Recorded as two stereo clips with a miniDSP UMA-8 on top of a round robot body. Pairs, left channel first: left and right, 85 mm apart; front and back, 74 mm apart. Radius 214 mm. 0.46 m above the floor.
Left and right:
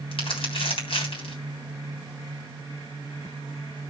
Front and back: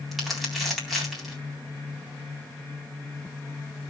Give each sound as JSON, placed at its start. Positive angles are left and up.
{"t": 0.1, "sound": "crumpling", "azimuth_deg": 90, "distance_m": 3.5}